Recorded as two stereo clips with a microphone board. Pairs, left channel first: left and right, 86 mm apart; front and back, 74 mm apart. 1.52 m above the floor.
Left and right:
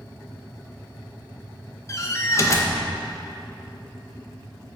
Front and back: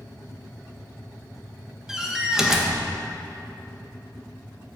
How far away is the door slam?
About 0.8 m.